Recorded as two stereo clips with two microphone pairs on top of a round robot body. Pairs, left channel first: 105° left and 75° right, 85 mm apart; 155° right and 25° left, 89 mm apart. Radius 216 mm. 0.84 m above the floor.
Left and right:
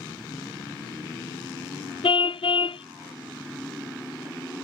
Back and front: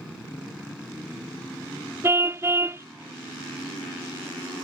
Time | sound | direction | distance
2.0 | a car horn | 90° left | ?